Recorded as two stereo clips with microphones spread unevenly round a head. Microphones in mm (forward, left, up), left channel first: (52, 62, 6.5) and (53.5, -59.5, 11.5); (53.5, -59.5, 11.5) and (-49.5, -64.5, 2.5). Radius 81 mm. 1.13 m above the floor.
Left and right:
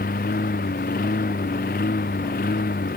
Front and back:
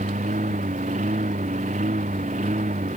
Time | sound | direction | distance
0.0 | a lawn mower | 130° left | ?